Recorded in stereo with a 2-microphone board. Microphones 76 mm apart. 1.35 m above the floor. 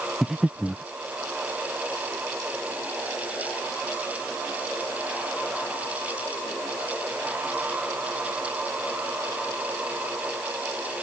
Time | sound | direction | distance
0.2 | breathing | 5° right (ahead or behind) | ?